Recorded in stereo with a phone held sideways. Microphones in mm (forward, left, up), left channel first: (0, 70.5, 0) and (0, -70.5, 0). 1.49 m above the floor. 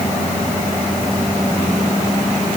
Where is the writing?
I don't hear writing.